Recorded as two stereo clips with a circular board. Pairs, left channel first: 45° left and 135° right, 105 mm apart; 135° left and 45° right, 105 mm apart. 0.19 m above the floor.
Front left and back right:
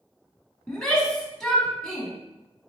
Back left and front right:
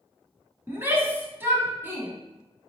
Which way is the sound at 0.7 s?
30° right.